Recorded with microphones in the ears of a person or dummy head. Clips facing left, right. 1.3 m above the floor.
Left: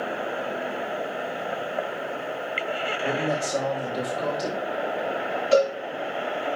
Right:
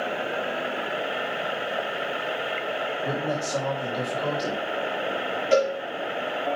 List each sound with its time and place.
3.0 s a man speaking: centre (ahead or behind), 2.5 m
5.5 s a cowbell: 45° right (ahead or behind), 4.5 m